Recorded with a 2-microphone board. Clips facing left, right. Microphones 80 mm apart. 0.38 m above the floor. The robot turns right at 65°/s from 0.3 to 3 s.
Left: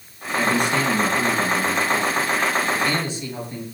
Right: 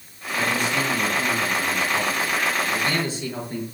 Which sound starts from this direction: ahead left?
A man speaking, at 0.3 s.